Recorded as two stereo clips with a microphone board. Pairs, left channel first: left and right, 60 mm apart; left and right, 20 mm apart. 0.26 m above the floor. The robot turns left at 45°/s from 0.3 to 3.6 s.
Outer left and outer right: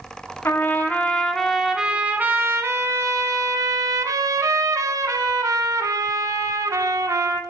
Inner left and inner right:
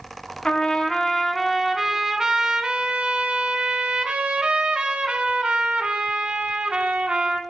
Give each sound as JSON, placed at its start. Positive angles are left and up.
{"t": 0.5, "sound": "a trumpet", "azimuth_deg": 45, "distance_m": 0.7}